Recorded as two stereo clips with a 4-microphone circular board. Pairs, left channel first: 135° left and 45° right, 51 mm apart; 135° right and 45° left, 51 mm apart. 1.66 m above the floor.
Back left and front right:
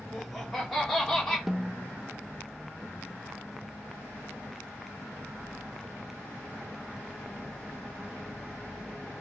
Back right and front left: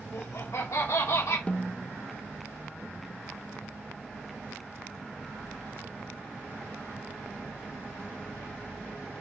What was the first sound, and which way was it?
Laughter, 135° right.